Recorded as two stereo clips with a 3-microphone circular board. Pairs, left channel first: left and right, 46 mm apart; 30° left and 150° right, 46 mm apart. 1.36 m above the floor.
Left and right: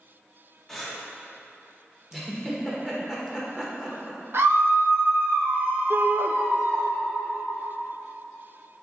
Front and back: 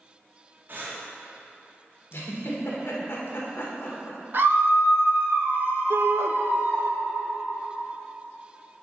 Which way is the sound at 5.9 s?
130° right.